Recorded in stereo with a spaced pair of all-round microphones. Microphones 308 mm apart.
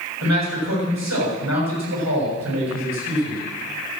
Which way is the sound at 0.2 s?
60° right (ahead or behind).